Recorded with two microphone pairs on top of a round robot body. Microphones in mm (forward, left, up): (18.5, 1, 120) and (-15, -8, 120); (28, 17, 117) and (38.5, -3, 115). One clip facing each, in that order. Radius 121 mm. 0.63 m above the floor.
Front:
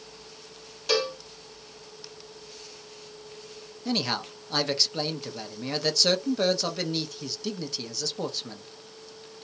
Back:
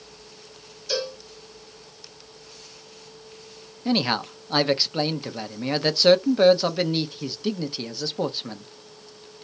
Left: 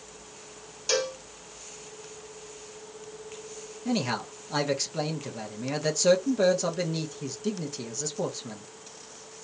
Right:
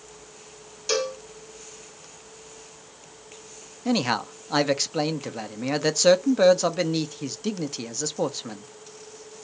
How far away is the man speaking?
About 0.7 m.